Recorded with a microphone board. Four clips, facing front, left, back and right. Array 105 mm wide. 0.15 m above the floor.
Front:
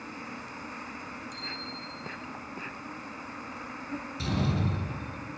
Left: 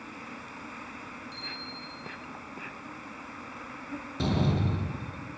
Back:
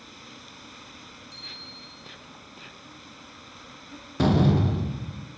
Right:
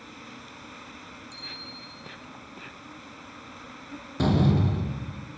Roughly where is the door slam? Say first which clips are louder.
Right 5 dB, back 10 dB; behind.